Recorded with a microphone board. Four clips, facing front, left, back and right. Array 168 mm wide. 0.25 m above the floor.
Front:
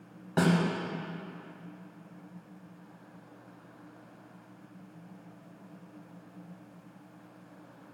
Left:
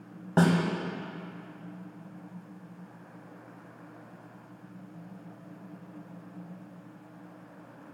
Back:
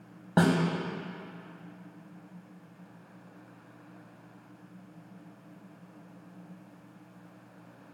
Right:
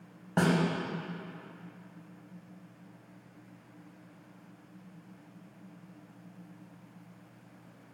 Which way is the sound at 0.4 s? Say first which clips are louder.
Left 3 dB, back 2 dB; 150° left.